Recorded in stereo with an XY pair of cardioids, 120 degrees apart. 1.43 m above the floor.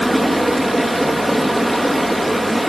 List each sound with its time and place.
0.0 s running water: 5° right, 1.9 m